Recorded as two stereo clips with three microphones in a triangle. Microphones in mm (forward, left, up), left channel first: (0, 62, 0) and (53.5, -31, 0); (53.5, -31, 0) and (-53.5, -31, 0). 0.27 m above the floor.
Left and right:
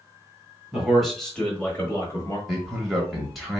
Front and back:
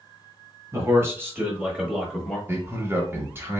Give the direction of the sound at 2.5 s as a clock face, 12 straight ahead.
5 o'clock.